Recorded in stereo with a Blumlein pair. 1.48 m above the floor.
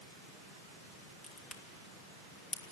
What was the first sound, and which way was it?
A crack, 20° left.